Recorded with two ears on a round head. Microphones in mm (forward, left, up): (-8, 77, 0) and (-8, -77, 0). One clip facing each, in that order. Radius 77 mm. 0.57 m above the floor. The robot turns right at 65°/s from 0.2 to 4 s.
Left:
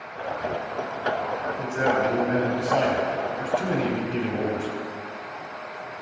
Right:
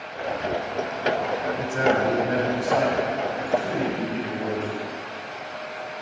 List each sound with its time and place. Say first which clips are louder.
1.6 s a man speaking: right 1 dB; 70° right, 1.8 m; by 4.7 s 85° left, 1.8 m